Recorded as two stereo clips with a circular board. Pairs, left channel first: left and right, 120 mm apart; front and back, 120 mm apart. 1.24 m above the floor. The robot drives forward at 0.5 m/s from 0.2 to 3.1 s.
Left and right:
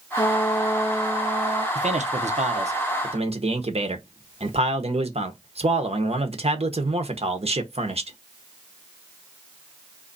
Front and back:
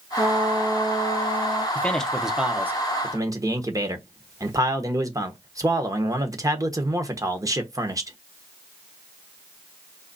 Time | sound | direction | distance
0.2 | a trumpet | 125° left | 0.6 m
1.8 | a man speaking | 75° right | 0.9 m